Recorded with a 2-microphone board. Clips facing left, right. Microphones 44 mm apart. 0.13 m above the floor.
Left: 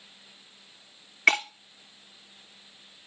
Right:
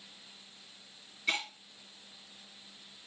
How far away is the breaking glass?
About 0.8 m.